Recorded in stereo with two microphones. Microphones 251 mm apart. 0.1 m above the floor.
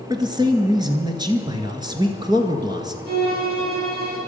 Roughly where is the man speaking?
Centre.